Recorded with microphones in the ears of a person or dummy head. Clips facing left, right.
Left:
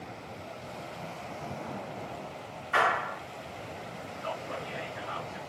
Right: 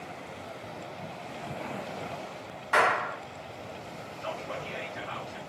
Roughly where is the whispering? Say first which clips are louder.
Right 1 dB; right.